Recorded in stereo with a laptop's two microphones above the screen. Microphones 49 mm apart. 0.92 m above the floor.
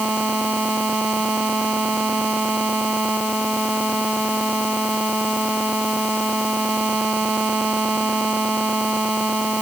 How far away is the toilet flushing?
No toilet flushing in this recording.